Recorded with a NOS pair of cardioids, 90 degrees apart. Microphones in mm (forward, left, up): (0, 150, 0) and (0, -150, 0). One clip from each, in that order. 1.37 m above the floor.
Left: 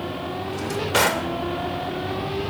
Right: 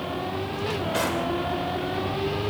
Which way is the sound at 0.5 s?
65° left.